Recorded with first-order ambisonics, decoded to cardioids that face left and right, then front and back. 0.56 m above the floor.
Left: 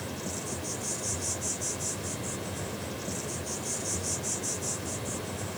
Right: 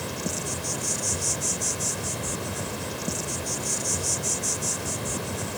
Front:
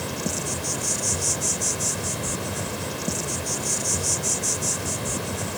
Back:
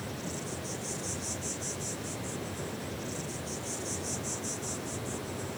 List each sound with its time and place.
0.0 s an insect: 30° right, 0.8 m